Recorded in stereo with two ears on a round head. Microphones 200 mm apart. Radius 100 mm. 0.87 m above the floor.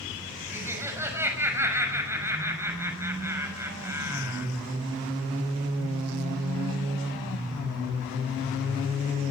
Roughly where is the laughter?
Centre.